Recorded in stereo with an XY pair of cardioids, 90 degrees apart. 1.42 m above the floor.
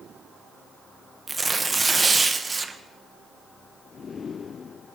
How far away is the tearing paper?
About 1.0 m.